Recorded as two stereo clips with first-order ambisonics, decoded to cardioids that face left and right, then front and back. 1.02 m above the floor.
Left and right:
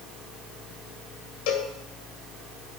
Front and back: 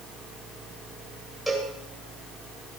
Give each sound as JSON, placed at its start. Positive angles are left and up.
{"t": 1.5, "sound": "a cowbell", "azimuth_deg": 90, "distance_m": 2.5}